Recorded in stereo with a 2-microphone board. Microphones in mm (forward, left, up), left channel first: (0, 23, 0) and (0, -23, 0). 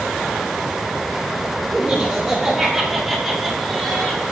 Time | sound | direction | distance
1.7 | laughter | 20° right (ahead or behind) | 2.5 m